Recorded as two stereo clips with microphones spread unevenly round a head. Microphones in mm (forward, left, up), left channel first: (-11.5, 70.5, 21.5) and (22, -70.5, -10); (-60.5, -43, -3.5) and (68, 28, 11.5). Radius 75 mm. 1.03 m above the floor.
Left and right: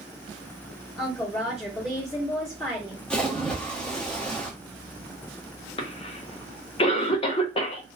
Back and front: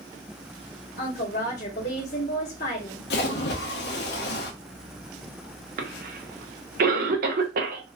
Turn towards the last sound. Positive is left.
turn(degrees=50)